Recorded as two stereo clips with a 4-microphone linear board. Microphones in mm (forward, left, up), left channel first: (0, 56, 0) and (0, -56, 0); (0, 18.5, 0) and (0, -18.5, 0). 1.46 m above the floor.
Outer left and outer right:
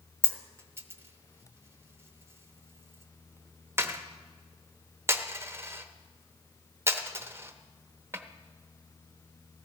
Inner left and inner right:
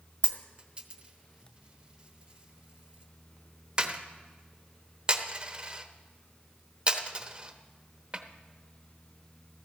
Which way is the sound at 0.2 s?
25° right (ahead or behind).